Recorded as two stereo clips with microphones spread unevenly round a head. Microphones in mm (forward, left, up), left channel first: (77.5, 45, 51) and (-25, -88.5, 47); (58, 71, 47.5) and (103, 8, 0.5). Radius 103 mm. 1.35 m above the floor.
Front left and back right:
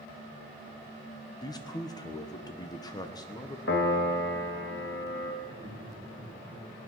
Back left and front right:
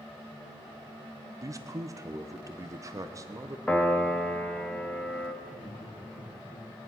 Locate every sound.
1.4 s a man speaking: 15° right, 0.9 m
3.7 s a piano: 85° left, 1.3 m
5.4 s laughter: 165° left, 1.6 m